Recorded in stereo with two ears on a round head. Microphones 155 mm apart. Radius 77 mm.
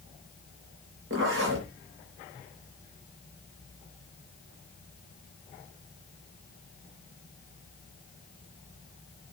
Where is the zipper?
80° right, 6.5 m.